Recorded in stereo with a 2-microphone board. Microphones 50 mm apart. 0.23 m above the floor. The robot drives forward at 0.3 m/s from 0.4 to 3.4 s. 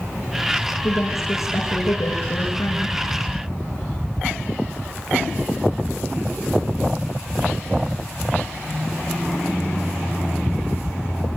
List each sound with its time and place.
0.8 s a woman speaking: 80° left, 9.5 m; by 3.0 s 75° left (ahead or behind), 9.5 m